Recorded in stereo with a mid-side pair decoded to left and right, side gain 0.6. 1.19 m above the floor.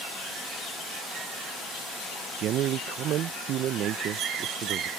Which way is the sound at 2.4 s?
55° right.